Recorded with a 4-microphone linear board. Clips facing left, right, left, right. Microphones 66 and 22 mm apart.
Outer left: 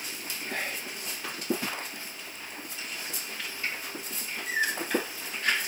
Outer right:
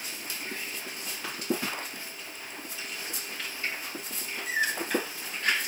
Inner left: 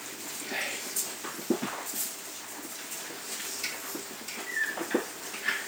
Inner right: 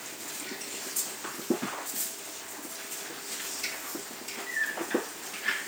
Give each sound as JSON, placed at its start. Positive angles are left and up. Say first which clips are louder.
{"t": 0.5, "sound": "whispering", "louder": "outer left 8 dB, inner left 5 dB", "side_deg": 65}